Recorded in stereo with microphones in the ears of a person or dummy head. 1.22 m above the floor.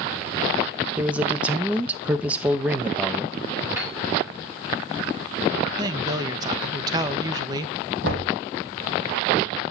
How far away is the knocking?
About 3.5 m.